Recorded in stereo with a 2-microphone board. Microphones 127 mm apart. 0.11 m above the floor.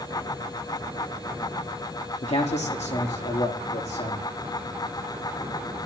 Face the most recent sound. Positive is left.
turn(degrees=60)  # may be behind; listen again after turning